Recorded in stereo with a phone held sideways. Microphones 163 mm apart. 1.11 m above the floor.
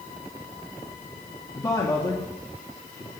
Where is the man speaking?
20° left (ahead or behind), 1.8 m.